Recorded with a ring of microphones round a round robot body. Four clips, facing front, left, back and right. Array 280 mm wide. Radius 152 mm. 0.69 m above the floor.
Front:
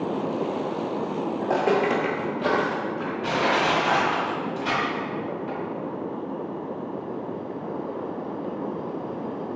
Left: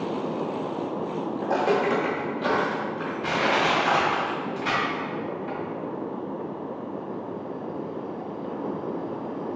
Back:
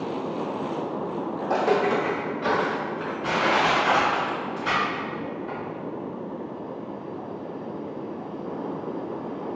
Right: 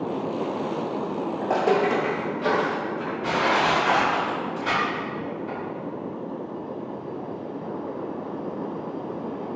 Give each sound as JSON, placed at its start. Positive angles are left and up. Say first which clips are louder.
{"t": 1.4, "sound": "footsteps", "louder": "right 2 dB, even", "azimuth_deg": -70, "distance_m": 0.7}
{"t": 3.2, "sound": "crushing", "louder": "right 1 dB, back 1 dB", "azimuth_deg": 30, "distance_m": 1.7}